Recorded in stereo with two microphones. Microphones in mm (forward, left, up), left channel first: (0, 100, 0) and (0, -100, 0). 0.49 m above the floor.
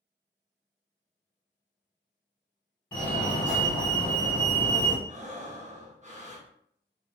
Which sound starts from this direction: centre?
A fire alarm, at 2.9 s.